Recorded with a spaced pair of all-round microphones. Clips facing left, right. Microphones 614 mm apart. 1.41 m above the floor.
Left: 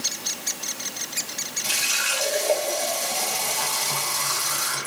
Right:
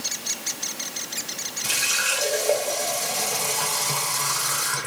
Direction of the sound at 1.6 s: 60° right (ahead or behind).